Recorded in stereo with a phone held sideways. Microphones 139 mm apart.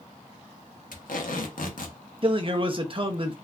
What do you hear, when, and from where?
0.9 s tape being pulled: 75° left (ahead or behind), 0.8 m
2.2 s a man speaking: 40° right (ahead or behind), 0.7 m